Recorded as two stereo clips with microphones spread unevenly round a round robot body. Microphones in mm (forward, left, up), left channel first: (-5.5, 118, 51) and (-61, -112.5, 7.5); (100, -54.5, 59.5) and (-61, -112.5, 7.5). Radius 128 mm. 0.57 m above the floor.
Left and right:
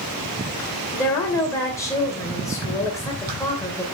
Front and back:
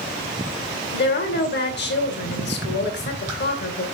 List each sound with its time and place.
0.9 s a woman speaking: 5° right, 2.5 m